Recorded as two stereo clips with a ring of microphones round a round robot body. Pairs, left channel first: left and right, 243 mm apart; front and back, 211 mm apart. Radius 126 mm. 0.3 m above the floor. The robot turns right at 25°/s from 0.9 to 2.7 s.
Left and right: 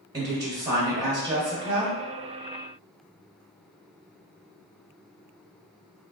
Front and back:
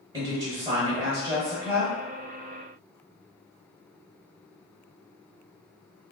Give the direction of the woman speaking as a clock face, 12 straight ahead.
5 o'clock.